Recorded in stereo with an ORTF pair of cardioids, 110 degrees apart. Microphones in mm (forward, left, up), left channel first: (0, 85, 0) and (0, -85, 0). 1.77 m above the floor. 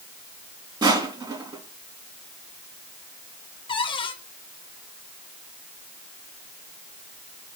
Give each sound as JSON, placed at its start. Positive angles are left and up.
{"t": 0.8, "sound": "crushing", "azimuth_deg": -25, "distance_m": 3.0}
{"t": 3.7, "sound": "a cupboard door", "azimuth_deg": 30, "distance_m": 1.4}